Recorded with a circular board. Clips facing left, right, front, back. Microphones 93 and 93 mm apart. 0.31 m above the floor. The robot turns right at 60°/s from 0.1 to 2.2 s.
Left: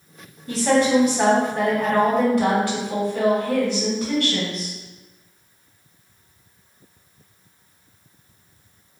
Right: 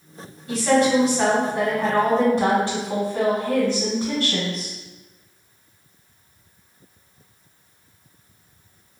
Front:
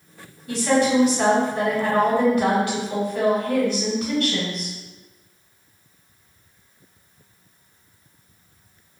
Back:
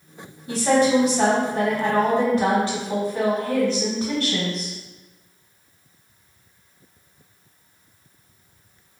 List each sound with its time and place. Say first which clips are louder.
0.5 s a woman speaking: even, back 1 dB; 115° left, 1.7 m; by 4.7 s 140° right, 1.7 m